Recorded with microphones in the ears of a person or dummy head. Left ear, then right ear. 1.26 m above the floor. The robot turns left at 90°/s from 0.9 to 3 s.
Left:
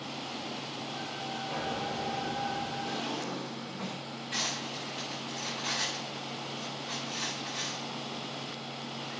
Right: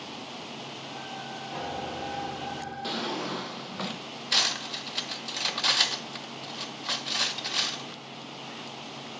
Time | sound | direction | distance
1.5 | a piano | 105° left | 2 m
2.8 | a drawer | 45° right (ahead or behind) | 0.7 m
4.3 | cutlery clinking | 50° right (ahead or behind) | 0.6 m